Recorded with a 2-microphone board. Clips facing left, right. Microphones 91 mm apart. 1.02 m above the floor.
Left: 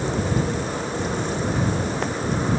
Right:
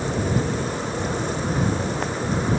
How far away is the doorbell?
I don't hear a doorbell.